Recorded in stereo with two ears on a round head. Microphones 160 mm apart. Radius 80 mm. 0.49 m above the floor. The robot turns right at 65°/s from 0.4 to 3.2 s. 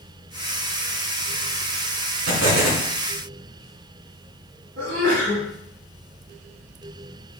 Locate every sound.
2.3 s an explosion: 105° right, 4 m; by 2.9 s 70° right, 4 m
4.8 s a sneeze: 50° right (ahead or behind), 2.5 m